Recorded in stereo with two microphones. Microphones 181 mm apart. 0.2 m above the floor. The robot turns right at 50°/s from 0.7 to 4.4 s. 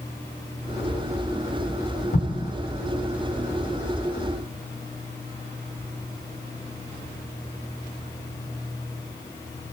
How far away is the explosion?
About 0.8 m.